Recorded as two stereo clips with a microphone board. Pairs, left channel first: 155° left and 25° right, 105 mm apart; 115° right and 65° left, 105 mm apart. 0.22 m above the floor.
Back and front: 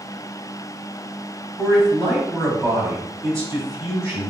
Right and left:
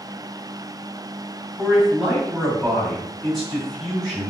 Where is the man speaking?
15° right, 1.7 m.